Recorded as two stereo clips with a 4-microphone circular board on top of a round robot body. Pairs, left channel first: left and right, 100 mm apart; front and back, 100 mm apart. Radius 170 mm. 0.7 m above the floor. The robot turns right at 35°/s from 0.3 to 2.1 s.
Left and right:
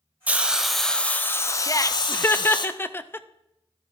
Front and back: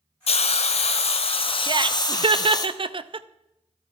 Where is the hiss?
15° right, 1.0 m; by 2.7 s 50° left, 1.0 m.